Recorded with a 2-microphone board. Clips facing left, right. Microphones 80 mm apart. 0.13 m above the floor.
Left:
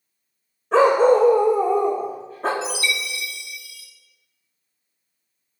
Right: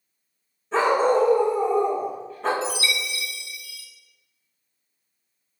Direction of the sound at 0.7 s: 65° left (ahead or behind).